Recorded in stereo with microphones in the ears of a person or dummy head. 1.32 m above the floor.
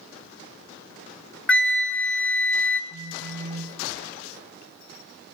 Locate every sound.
1.5 s a flute: 5° left (ahead or behind), 0.6 m
2.9 s a phone buzzing: 50° right (ahead or behind), 0.8 m